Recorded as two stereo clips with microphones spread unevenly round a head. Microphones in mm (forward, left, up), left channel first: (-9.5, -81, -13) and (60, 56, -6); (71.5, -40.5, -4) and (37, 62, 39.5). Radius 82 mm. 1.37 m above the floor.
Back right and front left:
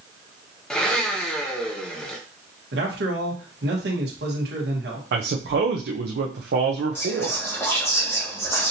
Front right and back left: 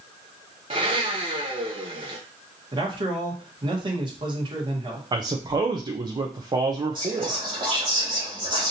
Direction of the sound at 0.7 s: 155° left.